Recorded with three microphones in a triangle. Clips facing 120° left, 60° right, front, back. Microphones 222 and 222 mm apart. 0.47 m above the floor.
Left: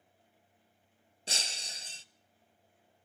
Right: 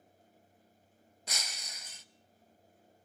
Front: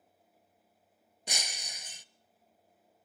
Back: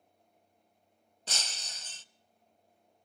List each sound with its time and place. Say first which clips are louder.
1.3 s breaking glass: left 3 dB, front 2 dB; 75° left, 0.6 m